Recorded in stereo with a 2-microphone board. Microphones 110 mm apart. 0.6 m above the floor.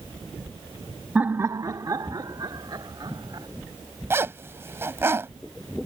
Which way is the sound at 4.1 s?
20° right (ahead or behind).